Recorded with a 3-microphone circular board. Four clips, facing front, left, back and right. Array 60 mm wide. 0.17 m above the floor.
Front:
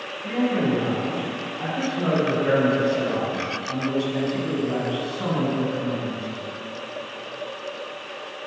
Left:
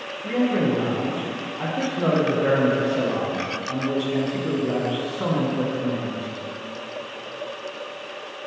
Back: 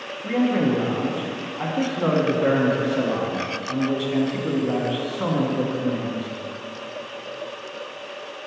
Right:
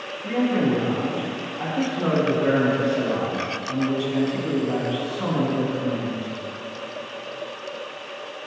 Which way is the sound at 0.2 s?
170° left.